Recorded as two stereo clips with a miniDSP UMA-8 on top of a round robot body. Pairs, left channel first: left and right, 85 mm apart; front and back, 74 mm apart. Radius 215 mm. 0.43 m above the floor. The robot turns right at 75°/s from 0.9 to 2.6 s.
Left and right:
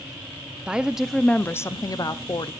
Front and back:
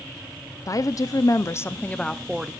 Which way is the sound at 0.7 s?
10° right.